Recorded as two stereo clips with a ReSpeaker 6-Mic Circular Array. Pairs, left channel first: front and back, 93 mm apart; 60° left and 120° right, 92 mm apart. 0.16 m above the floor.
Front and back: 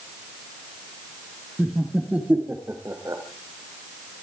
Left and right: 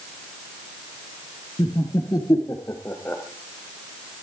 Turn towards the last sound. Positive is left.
turn(degrees=130)